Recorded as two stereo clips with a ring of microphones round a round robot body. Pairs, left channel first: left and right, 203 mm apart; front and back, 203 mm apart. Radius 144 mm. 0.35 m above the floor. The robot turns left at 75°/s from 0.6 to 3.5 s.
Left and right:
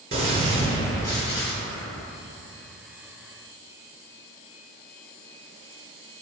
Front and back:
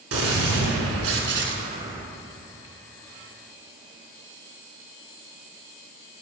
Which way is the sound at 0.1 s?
155° right.